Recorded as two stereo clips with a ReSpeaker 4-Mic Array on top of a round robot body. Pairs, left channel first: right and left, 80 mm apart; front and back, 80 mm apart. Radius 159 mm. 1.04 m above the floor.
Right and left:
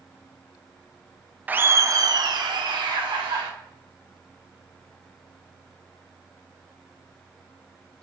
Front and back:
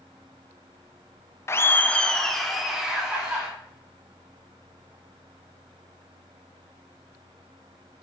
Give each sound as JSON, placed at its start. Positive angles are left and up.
{"t": 1.5, "sound": "laughter", "azimuth_deg": 30, "distance_m": 0.5}